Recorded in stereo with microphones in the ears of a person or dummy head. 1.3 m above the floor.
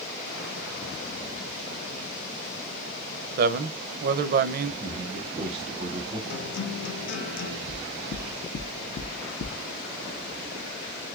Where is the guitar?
60° left (ahead or behind), 0.9 m.